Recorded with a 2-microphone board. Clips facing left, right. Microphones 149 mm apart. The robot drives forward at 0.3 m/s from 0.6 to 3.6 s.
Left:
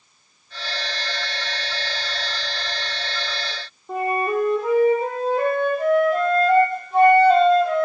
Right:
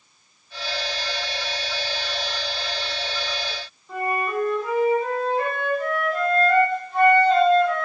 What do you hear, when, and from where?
3.9 s a flute: 60° left (ahead or behind), 7.5 m